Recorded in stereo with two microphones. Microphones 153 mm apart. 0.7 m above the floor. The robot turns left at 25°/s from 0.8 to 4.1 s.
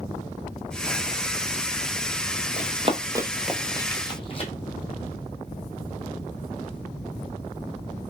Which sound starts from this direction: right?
Running footsteps, at 2.6 s.